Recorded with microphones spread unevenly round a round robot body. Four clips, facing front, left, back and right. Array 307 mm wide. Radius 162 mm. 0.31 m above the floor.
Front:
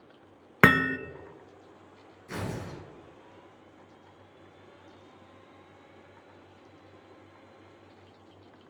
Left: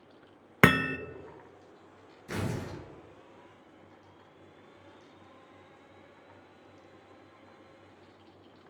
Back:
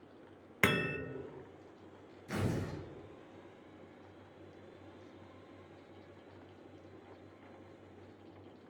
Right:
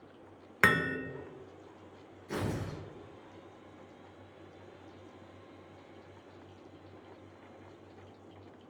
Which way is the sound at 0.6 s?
40° left.